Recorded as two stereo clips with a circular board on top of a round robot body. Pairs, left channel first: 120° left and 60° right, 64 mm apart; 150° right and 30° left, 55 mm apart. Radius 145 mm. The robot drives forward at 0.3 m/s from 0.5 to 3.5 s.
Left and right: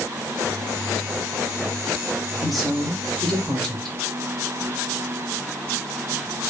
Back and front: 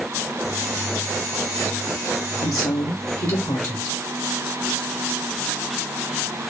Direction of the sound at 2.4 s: 150° right.